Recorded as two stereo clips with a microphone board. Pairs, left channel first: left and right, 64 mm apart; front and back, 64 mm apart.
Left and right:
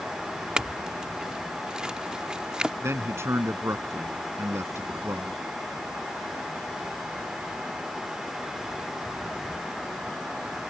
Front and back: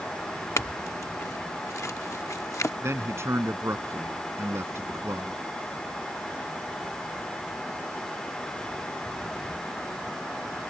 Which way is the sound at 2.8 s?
135° right.